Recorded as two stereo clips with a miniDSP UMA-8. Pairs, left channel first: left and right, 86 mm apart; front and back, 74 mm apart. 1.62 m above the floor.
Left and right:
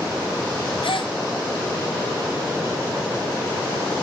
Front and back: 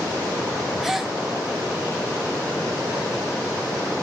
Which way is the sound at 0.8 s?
95° left.